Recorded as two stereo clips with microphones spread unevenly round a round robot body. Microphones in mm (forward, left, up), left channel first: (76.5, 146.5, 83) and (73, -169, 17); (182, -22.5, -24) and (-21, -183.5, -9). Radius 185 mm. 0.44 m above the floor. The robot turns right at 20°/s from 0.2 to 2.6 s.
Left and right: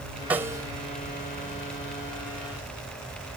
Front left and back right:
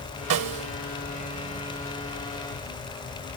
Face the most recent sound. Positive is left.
turn(degrees=-125)